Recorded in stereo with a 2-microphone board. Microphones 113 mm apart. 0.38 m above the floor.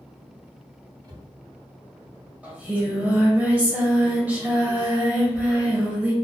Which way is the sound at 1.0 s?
40° right (ahead or behind).